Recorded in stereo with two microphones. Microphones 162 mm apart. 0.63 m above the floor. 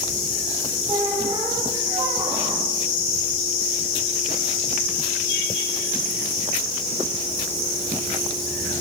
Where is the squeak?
30° right (ahead or behind), 8.5 m.